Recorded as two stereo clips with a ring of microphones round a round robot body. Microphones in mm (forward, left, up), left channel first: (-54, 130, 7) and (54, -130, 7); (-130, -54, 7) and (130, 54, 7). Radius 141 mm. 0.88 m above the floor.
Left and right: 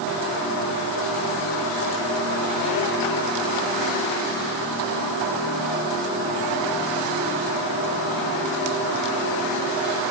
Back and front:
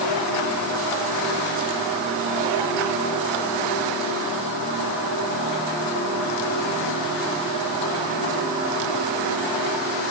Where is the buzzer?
No buzzer in this recording.